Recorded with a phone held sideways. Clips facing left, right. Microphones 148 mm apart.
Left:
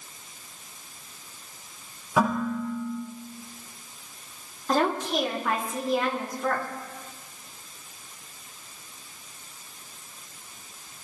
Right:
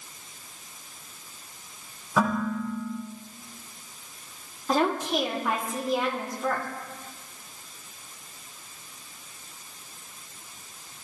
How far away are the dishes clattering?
About 9 m.